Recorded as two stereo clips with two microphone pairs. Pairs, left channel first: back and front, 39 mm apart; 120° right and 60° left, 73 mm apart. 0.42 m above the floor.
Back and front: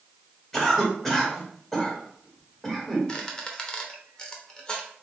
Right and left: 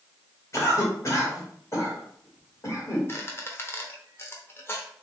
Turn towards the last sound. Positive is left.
turn(degrees=-130)